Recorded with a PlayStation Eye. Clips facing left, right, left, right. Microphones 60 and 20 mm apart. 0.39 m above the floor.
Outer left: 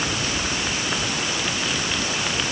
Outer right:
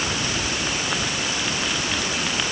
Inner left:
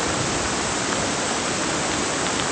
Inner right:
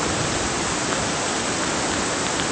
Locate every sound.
Only background noise.